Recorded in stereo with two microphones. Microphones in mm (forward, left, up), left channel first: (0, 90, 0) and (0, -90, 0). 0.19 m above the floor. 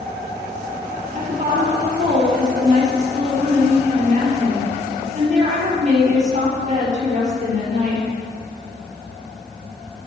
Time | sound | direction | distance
1.1 | a woman speaking | 45° right (ahead or behind) | 4 m